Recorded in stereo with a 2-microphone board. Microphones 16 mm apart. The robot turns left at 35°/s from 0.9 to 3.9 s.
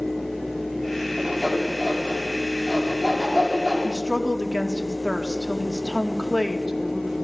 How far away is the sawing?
About 9 m.